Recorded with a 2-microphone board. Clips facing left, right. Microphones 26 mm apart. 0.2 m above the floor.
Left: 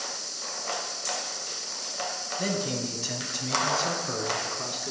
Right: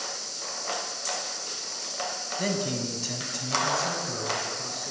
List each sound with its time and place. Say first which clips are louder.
2.4 s a man speaking: right 1 dB; 10° right (ahead or behind), 1.1 m; by 4.9 s 50° left (ahead or behind), 1.5 m